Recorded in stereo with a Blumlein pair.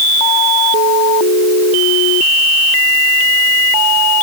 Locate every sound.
Only background noise.